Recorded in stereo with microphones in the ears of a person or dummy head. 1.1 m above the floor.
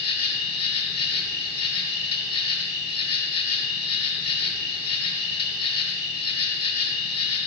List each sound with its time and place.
0.0 s an insect: 30° left (ahead or behind), 2 m